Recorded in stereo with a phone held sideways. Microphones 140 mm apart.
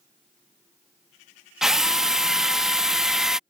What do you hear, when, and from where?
1.6 s a drill: 5° right (ahead or behind)